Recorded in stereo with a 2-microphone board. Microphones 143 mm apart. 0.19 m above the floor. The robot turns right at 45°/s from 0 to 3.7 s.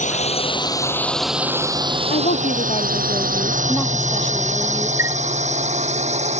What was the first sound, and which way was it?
A drone, 60° left (ahead or behind).